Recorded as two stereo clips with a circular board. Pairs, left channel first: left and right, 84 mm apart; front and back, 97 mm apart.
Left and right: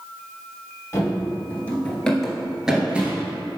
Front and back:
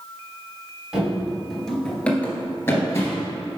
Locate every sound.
0.9 s running footsteps: 105° left, 1.6 m; by 3.3 s 30° right, 1.8 m